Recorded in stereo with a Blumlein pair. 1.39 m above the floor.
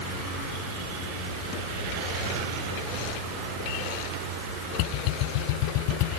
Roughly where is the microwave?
I don't hear a microwave.